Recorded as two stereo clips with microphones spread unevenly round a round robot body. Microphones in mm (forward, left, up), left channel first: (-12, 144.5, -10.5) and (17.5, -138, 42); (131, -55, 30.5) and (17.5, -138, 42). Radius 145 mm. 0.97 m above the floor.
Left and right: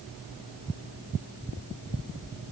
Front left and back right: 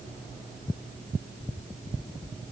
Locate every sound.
Only background noise.